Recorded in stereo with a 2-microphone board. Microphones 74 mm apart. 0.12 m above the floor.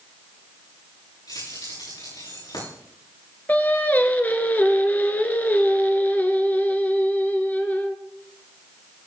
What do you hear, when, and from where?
1.3 s keys jangling: 75° left (ahead or behind), 10 m
3.5 s singing: 25° left (ahead or behind), 1.3 m